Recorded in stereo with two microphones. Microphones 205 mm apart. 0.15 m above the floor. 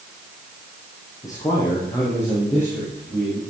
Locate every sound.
1.2 s a man speaking: 20° left (ahead or behind), 5.5 m; by 3.4 s 10° left (ahead or behind), 6 m